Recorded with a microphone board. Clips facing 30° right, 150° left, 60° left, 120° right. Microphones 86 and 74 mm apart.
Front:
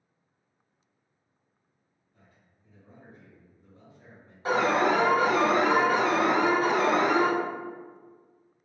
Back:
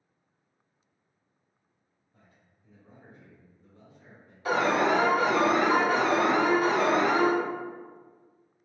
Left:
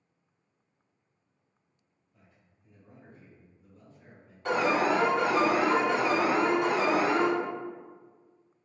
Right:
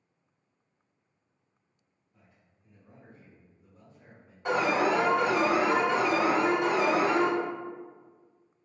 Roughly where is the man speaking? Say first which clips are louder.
Even, even; behind left.